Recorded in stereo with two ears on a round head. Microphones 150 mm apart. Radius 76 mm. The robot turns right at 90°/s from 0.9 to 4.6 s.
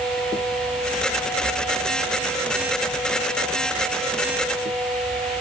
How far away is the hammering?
I don't hear hammering.